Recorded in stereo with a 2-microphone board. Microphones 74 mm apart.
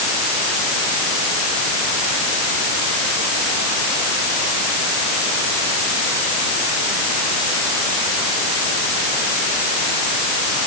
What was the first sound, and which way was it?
Only background noise.